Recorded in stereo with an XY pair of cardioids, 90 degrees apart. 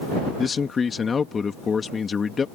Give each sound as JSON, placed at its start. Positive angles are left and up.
{"t": 0.4, "sound": "a man speaking", "azimuth_deg": 45}